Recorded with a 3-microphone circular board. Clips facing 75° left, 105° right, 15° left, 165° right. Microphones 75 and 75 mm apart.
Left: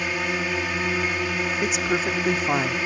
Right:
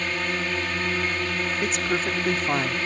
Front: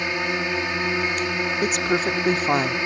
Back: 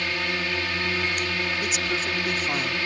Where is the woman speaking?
5° right.